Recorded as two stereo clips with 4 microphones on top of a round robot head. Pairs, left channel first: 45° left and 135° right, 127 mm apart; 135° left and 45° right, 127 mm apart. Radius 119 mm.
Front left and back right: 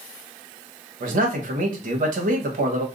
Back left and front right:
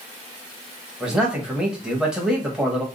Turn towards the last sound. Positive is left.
turn(degrees=-130)